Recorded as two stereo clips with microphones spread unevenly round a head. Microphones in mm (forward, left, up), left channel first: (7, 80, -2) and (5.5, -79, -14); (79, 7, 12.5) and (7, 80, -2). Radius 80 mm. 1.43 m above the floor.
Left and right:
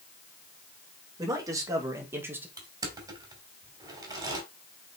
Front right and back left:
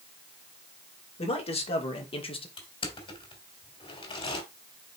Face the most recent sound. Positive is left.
turn(degrees=-20)